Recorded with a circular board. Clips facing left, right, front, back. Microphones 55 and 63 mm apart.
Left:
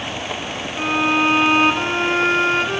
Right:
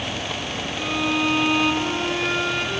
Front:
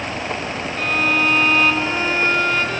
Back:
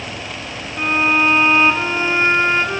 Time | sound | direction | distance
0.8 | a violin | 120° left | 2.0 m